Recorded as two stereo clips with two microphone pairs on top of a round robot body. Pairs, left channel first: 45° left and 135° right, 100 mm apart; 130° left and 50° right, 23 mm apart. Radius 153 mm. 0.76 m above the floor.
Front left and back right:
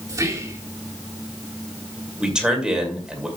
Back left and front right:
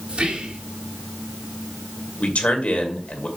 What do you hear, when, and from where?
0.1 s whispering: 80° right, 2.5 m
2.2 s a man speaking: 140° left, 2.5 m